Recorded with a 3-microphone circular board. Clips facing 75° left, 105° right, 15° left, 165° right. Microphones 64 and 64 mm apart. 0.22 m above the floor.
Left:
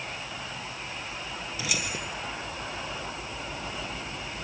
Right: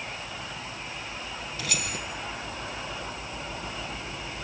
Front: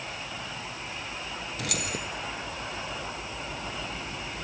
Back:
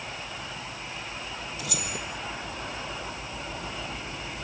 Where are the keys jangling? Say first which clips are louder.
Left 1 dB, front 3 dB; straight ahead, 2.5 m.